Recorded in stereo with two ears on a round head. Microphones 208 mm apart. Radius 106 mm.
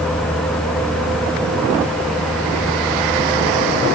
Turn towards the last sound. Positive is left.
No sound to turn to.